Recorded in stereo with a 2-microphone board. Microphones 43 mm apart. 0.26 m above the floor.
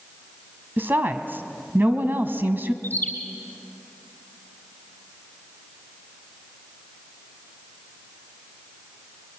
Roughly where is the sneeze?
No sneeze in this recording.